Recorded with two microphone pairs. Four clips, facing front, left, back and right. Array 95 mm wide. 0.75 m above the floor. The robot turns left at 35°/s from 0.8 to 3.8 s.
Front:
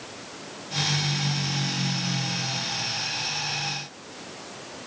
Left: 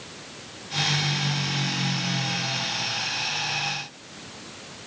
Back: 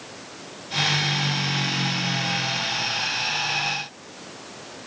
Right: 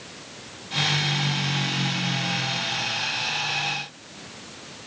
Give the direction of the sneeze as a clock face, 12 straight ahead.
No sneeze in this recording.